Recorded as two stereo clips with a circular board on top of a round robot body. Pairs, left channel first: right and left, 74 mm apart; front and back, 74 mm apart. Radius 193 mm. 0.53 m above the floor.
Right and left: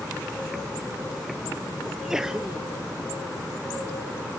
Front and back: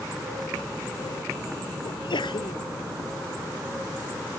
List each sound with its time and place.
1.9 s a sneeze: 5° left